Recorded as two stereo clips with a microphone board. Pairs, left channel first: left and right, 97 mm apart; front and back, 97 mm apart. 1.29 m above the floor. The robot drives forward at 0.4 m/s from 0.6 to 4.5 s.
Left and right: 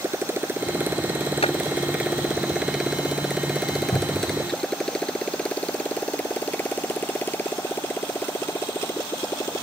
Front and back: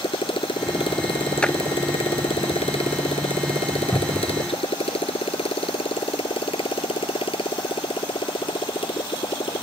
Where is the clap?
80° left.